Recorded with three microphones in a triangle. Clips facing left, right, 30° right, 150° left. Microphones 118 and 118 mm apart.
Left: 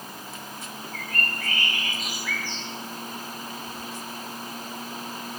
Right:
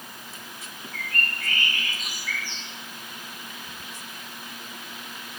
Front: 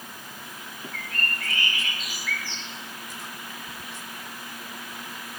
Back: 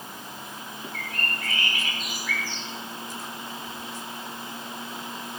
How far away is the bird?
About 6 m.